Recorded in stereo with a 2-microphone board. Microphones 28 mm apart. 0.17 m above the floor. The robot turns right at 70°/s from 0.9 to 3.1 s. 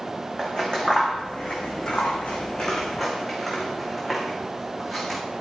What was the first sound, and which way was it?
Scissors, 30° left (ahead or behind).